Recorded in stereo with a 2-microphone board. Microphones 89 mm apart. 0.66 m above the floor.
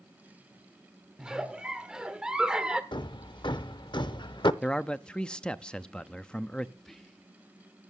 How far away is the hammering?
About 0.6 m.